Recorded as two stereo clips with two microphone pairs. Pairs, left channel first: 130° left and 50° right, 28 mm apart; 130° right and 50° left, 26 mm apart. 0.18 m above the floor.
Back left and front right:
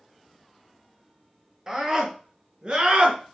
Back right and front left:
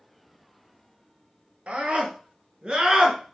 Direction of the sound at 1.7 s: 20° left.